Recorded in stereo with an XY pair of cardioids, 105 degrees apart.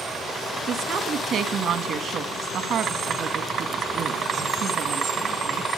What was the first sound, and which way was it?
A woman speaking, 65° right.